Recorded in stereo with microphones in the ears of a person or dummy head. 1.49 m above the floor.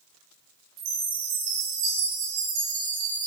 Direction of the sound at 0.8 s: 55° right (ahead or behind).